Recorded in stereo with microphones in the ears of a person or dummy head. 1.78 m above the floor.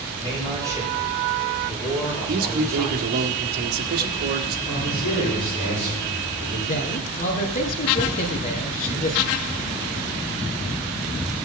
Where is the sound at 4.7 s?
25° left (ahead or behind), 7 m.